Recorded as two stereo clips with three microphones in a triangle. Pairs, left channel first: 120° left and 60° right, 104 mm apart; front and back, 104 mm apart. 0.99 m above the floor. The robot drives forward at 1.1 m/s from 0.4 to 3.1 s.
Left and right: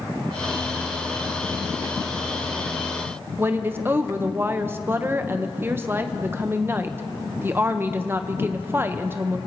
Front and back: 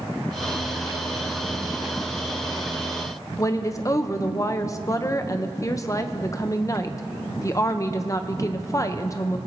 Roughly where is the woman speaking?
Ahead.